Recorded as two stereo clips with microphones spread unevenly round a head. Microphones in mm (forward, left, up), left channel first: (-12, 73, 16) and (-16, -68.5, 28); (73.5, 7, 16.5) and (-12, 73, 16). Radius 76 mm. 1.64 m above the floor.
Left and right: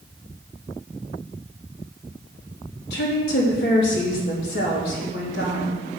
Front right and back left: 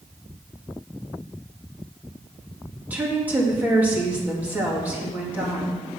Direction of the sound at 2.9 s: 70° left.